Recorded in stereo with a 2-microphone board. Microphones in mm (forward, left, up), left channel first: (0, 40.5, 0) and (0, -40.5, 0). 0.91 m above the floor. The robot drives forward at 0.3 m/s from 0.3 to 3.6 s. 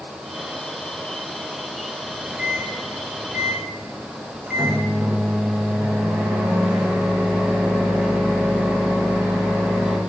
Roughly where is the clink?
No clink in this recording.